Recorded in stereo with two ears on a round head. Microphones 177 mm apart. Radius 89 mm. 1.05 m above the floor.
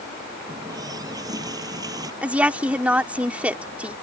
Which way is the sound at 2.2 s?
5° right (ahead or behind).